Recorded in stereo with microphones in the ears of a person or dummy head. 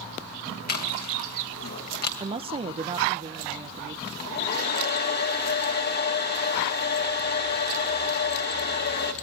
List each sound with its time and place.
0.7 s chewing: 55° left (ahead or behind), 3 m
2.2 s a woman speaking: 20° right (ahead or behind), 0.9 m
4.1 s a hair dryer: 55° left (ahead or behind), 3 m